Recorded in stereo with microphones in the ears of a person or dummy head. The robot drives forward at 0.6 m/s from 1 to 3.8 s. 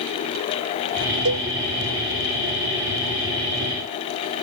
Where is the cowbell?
70° right (ahead or behind); by 1.5 s 75° right (ahead or behind).